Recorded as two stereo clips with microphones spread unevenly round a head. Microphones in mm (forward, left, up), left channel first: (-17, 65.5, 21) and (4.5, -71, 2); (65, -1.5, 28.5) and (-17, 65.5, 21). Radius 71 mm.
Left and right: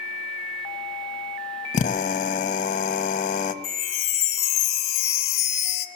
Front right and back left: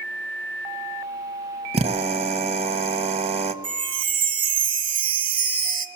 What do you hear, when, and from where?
1.7 s a drill: 135° left, 1.3 m
3.6 s a chime: 110° left, 1.2 m